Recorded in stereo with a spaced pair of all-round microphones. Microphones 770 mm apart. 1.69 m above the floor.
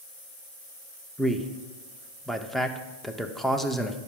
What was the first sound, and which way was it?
A man speaking, centre (ahead or behind).